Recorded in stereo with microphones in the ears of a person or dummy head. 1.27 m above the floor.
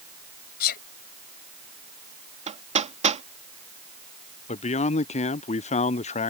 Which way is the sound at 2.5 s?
30° right (ahead or behind).